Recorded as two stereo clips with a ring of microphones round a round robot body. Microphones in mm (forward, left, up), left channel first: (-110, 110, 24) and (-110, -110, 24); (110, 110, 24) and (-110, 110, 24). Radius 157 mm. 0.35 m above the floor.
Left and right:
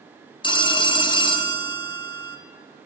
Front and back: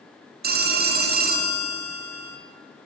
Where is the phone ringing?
155° left, 0.8 m.